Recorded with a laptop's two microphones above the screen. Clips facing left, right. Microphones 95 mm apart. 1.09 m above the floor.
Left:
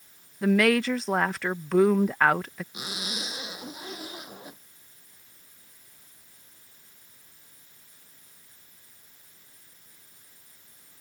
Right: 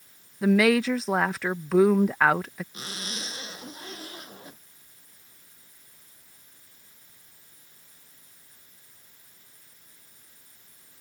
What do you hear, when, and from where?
0.4 s a woman speaking: 5° right (ahead or behind)
2.7 s a zipper: 10° left (ahead or behind)